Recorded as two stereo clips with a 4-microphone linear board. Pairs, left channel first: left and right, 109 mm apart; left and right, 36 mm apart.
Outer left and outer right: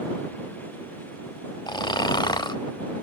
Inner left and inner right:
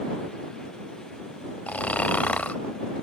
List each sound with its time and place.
1.7 s snoring: 45° left (ahead or behind)